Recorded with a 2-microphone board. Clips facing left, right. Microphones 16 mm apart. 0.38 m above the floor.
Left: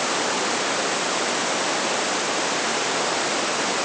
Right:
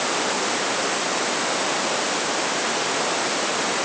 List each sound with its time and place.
Only background noise.